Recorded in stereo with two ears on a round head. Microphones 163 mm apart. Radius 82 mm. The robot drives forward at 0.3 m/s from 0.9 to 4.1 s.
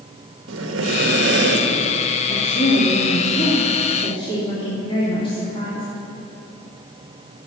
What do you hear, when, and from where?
0.5 s breathing: 75° right (ahead or behind), 1.3 m; by 1.9 s 65° right (ahead or behind), 1.4 m
2.2 s a woman speaking: 40° left (ahead or behind), 2.5 m; by 5.9 s 30° left (ahead or behind), 3 m